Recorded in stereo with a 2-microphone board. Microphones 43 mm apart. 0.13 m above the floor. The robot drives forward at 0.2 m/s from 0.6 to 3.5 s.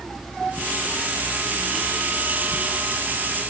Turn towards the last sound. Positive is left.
No sound to turn to.